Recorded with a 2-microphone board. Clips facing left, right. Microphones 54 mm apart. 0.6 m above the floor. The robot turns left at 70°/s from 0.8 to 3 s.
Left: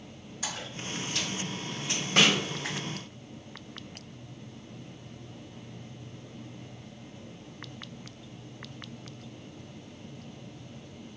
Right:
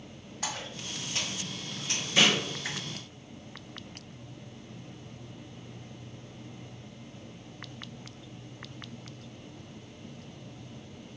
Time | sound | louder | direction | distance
0.4 | a splash | even | 45° right (ahead or behind) | 1.7 m
2.2 | a snare drum | left 1 dB | 60° left (ahead or behind) | 0.7 m